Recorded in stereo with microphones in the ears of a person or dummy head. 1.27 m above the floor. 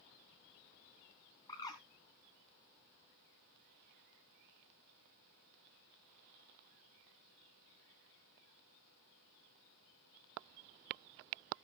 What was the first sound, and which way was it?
A bird, 30° left (ahead or behind).